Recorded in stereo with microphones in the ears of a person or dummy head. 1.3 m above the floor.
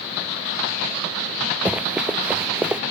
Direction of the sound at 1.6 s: 5° right (ahead or behind).